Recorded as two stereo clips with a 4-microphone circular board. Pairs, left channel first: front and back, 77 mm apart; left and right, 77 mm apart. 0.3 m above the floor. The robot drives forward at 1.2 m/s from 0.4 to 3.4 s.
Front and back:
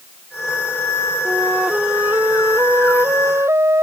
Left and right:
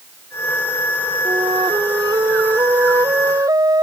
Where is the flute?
105° right; by 3.8 s 125° right.